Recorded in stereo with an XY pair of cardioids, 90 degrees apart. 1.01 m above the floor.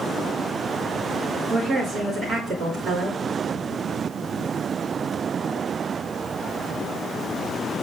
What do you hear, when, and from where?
1.5 s a woman speaking: 55° right, 2.5 m